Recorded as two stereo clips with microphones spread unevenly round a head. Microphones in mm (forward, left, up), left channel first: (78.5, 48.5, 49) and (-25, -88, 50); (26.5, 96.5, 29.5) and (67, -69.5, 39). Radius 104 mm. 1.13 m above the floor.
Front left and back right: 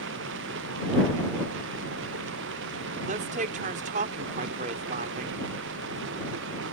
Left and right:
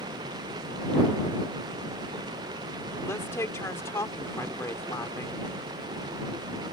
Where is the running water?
145° right.